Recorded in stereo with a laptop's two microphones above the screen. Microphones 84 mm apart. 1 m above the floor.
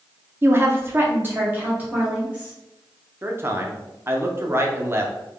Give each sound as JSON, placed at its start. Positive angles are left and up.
{"t": 0.4, "sound": "a woman speaking", "side_deg": -30, "distance_m": 0.5}
{"t": 3.2, "sound": "a man speaking", "side_deg": -30, "distance_m": 0.5}